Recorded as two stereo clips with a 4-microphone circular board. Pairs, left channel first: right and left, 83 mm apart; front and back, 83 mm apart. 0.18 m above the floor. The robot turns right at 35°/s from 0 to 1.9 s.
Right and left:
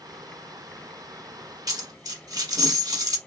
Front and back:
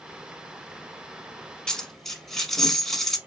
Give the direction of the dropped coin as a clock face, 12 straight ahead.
9 o'clock.